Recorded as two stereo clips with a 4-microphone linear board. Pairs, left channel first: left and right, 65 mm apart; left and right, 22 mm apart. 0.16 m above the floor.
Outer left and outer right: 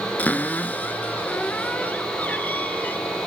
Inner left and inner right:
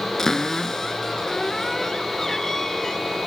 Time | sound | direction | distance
0.2 | a cupboard door | 25° left (ahead or behind) | 1.1 m